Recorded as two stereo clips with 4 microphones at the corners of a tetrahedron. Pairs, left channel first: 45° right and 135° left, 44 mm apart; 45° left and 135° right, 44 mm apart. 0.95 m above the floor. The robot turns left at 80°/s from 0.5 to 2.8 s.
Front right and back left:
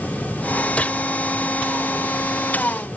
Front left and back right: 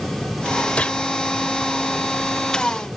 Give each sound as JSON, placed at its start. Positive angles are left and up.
{"t": 0.8, "sound": "a gunshot", "azimuth_deg": 0}